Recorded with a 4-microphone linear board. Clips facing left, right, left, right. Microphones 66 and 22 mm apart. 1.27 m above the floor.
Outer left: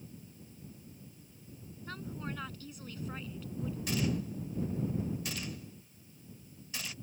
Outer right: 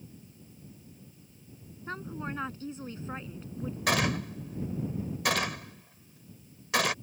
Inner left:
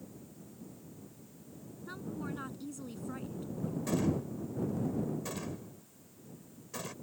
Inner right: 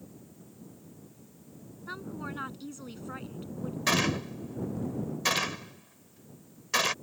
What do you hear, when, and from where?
1.9 s a woman speaking: 30° right (ahead or behind)
3.9 s a gunshot: 85° right